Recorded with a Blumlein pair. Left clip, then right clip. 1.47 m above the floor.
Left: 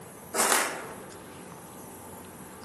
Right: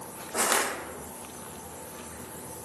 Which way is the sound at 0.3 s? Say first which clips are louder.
Left 1 dB; 10° left.